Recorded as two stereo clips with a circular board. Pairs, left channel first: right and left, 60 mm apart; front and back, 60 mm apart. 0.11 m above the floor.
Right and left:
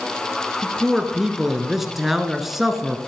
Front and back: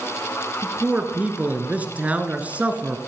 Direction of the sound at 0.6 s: 170° left.